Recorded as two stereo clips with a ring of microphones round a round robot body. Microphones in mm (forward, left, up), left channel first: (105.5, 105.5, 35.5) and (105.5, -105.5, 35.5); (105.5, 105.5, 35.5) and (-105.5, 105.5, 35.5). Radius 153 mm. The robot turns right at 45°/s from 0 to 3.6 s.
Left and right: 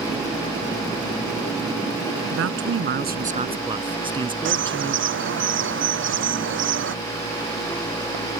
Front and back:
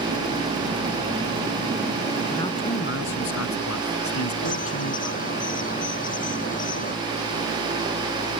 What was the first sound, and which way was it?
A man speaking, 80° right.